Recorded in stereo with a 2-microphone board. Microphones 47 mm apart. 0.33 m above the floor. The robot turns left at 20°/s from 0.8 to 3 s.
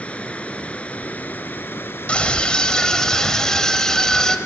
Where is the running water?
150° left, 0.9 m; by 4.5 s 105° left, 0.9 m.